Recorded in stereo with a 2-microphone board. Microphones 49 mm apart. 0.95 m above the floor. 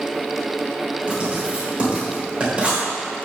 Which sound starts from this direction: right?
Writing, at 1.1 s.